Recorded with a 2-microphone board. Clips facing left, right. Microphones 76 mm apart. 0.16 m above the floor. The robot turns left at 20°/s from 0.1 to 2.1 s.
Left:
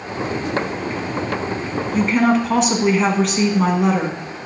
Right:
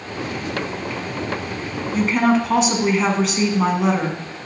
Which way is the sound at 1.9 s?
Centre (ahead or behind).